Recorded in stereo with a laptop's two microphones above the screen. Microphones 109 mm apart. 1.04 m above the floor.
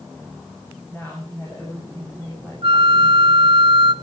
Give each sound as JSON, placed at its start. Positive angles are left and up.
{"t": 0.9, "sound": "a woman speaking", "side_deg": 15, "distance_m": 7.5}
{"t": 2.6, "sound": "a flute", "side_deg": -50, "distance_m": 1.2}